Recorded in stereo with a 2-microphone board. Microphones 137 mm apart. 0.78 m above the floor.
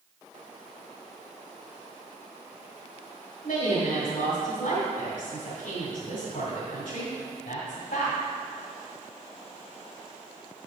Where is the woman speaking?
70° left (ahead or behind), 1.9 m.